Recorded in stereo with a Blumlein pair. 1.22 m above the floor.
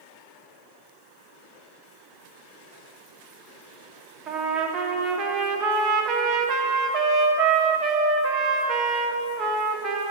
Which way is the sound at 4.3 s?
25° right.